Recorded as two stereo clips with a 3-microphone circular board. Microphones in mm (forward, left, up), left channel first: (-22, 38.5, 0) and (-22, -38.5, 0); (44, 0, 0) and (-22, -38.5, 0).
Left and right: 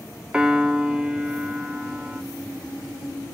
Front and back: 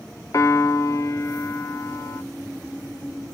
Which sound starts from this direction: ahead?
A piano, at 0.3 s.